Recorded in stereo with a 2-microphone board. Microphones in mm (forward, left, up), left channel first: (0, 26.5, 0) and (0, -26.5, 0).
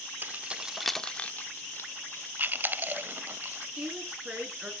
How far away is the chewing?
About 0.7 m.